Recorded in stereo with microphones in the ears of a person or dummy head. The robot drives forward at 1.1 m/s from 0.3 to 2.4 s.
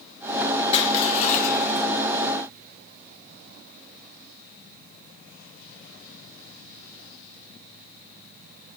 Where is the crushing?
30° left (ahead or behind), 2.5 m; by 1.9 s 55° left (ahead or behind), 1.8 m.